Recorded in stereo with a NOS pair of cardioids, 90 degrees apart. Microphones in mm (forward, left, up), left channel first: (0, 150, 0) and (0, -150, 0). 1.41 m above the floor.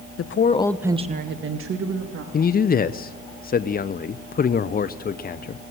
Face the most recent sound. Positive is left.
turn(degrees=30)